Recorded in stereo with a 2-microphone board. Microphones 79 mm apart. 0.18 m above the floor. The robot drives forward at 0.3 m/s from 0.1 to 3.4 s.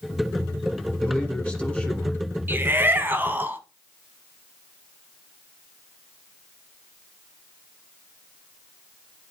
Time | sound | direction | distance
1.0 | a man speaking | 15° left (ahead or behind) | 1.5 m
2.5 | a shout | 25° right (ahead or behind) | 1.1 m